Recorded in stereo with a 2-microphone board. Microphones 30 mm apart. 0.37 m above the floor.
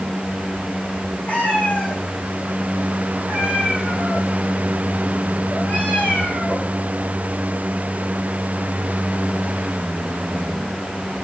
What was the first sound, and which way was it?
A cat meowing, 70° left (ahead or behind).